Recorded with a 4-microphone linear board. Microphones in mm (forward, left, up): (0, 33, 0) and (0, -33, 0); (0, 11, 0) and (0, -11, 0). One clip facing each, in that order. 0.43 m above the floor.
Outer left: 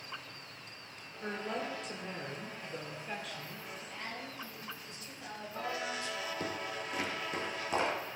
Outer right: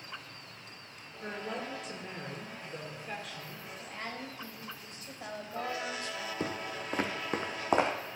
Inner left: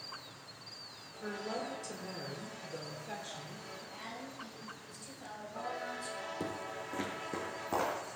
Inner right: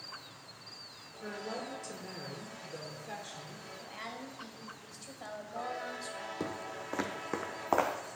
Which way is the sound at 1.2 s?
Centre (ahead or behind).